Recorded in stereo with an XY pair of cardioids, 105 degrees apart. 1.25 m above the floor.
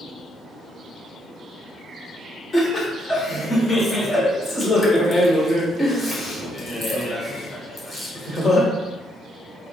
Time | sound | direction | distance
2.5 | laughter | 35° left | 1.1 m